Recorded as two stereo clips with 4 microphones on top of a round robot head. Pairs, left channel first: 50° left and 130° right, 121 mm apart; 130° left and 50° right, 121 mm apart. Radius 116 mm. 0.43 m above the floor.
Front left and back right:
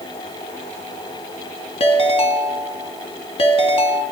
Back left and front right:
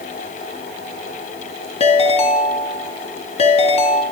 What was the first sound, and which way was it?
A ringtone, 90° left.